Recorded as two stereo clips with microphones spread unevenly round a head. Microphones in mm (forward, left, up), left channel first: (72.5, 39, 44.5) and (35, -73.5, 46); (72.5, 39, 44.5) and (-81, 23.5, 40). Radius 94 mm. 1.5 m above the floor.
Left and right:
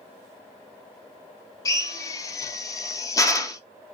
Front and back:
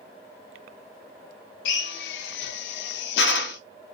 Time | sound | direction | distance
1.6 | a drill | 10° left | 0.5 m